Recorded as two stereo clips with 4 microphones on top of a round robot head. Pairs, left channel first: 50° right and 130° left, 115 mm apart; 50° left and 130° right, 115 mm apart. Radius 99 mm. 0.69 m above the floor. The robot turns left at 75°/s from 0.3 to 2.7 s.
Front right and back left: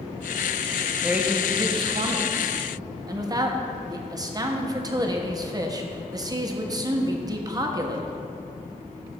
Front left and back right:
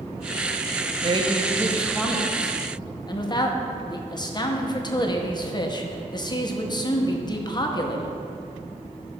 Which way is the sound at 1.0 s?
150° right.